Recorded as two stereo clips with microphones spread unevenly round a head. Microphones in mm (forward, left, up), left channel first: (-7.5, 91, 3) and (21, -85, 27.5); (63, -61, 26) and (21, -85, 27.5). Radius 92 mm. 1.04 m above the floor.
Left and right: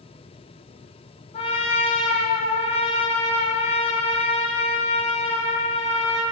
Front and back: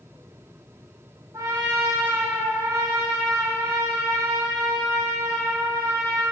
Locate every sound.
1.3 s a trumpet: 160° left, 1.7 m